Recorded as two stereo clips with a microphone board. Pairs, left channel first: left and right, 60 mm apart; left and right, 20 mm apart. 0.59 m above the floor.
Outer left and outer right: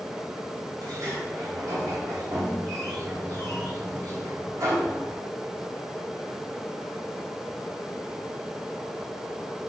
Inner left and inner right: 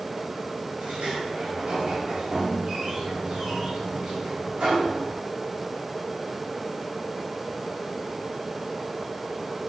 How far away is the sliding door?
About 3.5 m.